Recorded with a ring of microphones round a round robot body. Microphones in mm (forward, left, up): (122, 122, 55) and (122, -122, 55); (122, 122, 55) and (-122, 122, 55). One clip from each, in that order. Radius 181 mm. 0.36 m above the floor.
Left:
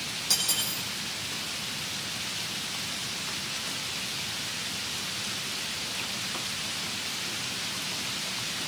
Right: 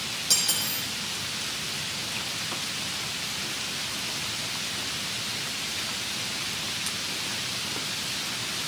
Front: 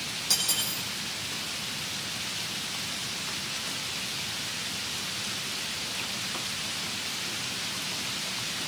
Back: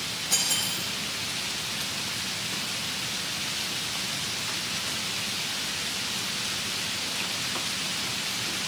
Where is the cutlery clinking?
15° right, 10 m.